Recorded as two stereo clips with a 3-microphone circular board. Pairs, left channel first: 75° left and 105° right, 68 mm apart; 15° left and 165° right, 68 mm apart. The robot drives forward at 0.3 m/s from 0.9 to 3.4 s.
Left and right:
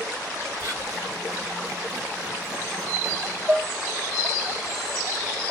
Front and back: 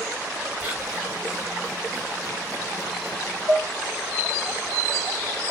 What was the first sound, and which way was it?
Whispering, 105° right.